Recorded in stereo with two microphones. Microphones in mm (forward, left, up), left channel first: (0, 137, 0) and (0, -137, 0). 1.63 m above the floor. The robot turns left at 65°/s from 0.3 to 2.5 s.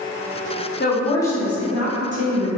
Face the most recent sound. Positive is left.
turn(degrees=-70)